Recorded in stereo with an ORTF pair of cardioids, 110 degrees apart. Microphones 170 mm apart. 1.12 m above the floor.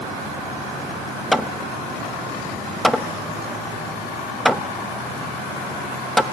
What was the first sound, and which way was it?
Hammering, straight ahead.